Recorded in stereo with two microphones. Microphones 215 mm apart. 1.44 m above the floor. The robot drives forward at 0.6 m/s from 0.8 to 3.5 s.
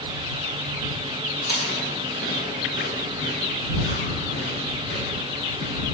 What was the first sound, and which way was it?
Chewing, 50° left (ahead or behind).